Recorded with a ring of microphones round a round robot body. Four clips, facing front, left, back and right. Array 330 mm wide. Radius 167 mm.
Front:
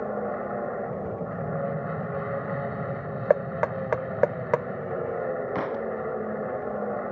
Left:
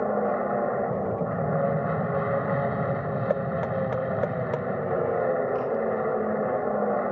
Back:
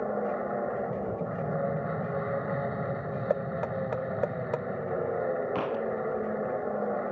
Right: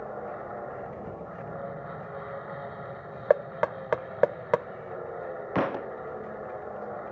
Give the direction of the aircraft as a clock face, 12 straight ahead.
9 o'clock.